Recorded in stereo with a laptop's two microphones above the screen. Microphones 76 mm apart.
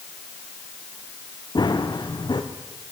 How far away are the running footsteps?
About 3.5 m.